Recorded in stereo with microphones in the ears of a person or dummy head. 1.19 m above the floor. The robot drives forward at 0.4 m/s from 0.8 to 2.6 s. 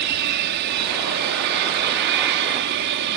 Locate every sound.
0.0 s an aircraft: 60° right (ahead or behind)